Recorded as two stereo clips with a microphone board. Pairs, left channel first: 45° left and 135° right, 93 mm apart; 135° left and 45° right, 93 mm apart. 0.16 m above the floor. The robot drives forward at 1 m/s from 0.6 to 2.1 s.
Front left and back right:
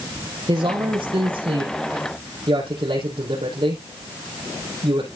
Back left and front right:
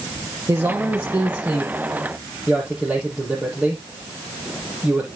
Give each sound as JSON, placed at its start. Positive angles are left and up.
{"t": 0.5, "sound": "a man speaking", "azimuth_deg": -100, "distance_m": 4.5}